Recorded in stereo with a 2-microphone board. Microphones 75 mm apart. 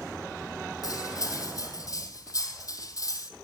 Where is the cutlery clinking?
50° left (ahead or behind), 2.5 m.